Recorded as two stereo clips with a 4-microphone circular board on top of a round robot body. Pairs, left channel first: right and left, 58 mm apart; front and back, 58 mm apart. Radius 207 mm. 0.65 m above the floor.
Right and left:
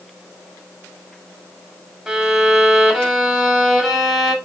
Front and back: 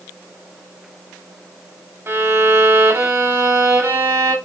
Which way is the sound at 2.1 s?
170° left.